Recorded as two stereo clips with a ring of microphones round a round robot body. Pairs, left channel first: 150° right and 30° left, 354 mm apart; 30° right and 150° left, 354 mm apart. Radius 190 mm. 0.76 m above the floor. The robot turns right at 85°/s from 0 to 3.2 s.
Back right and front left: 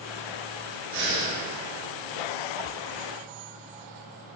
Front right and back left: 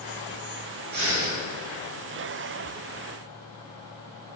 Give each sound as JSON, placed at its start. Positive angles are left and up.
{"t": 0.9, "sound": "breathing", "azimuth_deg": 85, "distance_m": 1.6}